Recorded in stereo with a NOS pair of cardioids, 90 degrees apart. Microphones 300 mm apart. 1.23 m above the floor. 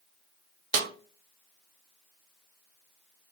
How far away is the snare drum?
About 0.7 m.